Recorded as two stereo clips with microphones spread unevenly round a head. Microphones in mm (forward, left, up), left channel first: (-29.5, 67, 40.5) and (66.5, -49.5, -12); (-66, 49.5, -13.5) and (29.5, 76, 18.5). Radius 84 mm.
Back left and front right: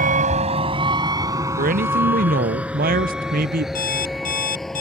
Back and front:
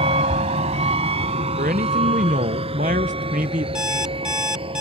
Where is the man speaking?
30° right.